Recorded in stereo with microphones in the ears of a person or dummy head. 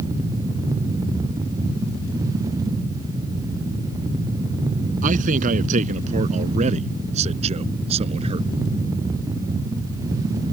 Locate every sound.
5.0 s a man speaking: 45° right (ahead or behind); by 8.5 s 35° right (ahead or behind)